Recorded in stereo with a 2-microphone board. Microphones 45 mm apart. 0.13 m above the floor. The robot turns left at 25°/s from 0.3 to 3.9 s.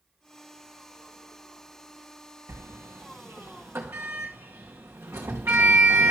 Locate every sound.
2.5 s a sliding door: 80° right, 1.7 m; by 6.1 s 65° right (ahead or behind), 1.7 m